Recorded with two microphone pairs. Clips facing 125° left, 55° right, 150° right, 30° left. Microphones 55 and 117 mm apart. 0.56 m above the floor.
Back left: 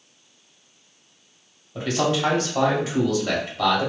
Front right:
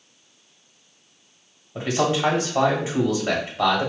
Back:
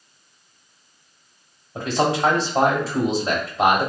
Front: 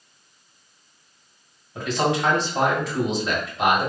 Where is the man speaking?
110° right, 1.4 m.